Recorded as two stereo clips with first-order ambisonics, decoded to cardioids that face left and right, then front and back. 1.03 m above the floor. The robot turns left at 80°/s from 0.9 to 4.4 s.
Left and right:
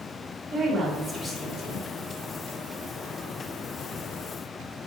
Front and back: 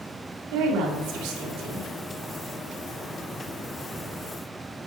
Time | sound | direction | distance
0.5 | a woman speaking | 165° right | 2.5 m